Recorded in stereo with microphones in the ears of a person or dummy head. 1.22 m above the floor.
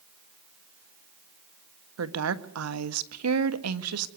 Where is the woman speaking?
80° right, 1.6 m.